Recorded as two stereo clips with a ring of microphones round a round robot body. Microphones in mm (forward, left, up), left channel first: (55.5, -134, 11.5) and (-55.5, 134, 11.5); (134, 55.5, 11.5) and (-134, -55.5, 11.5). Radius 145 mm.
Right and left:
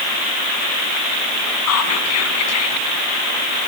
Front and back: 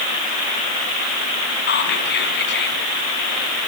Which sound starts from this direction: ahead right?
Whispering, at 1.7 s.